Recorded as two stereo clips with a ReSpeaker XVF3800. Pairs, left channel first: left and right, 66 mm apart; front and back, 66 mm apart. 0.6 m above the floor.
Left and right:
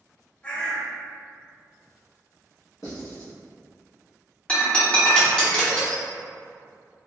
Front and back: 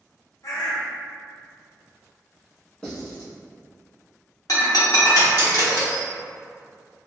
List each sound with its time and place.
0.4 s a bird: 20° left, 0.7 m
2.8 s writing: 80° left, 1.3 m
4.5 s breaking glass: 20° left, 0.8 m